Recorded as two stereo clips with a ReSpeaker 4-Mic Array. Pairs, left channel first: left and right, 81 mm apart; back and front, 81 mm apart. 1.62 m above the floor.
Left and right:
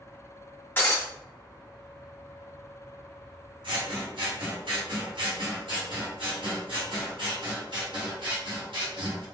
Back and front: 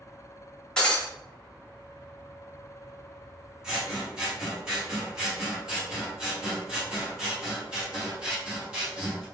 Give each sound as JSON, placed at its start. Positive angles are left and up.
{"t": 0.8, "sound": "breaking glass", "azimuth_deg": 115, "distance_m": 1.2}
{"t": 3.6, "sound": "scissors", "azimuth_deg": -80, "distance_m": 1.3}